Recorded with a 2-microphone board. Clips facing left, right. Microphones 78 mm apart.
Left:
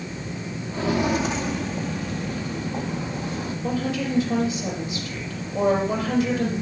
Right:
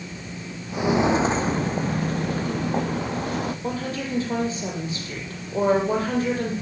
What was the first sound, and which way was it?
Footsteps, 10° right (ahead or behind).